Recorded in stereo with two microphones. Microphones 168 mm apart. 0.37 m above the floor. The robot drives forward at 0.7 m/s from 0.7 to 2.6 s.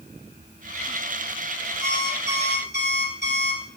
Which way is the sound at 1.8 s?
80° right.